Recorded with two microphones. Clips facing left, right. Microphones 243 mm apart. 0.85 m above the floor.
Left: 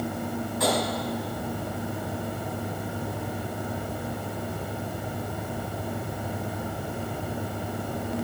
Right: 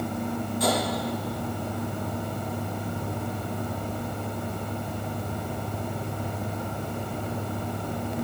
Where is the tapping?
75° left (ahead or behind), 4 m.